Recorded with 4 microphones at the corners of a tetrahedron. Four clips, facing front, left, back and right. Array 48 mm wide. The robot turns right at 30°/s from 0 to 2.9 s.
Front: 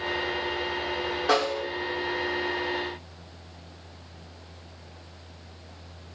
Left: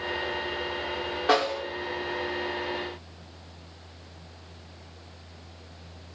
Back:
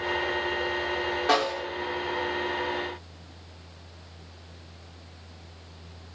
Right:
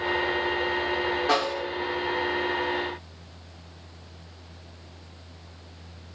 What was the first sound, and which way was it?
A snare drum, 115° left.